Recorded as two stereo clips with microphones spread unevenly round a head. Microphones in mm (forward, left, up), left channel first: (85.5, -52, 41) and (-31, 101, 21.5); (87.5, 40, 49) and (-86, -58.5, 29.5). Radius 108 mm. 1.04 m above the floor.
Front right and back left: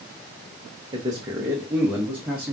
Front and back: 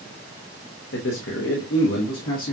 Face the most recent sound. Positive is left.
turn(degrees=45)